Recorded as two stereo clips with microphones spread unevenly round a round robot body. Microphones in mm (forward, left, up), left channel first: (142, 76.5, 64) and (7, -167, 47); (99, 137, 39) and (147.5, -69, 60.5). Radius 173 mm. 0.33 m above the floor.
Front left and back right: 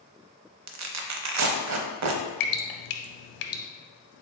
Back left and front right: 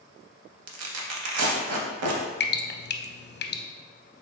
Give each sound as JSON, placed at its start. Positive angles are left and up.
{"t": 0.7, "sound": "tearing paper", "azimuth_deg": -85, "distance_m": 0.6}
{"t": 2.4, "sound": "dripping", "azimuth_deg": 55, "distance_m": 0.6}